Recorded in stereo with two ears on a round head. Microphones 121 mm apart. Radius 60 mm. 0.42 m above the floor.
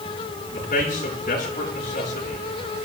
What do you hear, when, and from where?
0.5 s a man speaking: 65° left (ahead or behind), 6.5 m